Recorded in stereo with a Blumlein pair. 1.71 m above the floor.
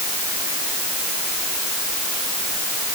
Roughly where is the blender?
No blender in this recording.